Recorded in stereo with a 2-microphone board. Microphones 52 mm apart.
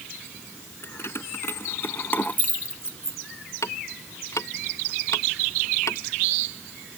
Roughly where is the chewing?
No chewing in this recording.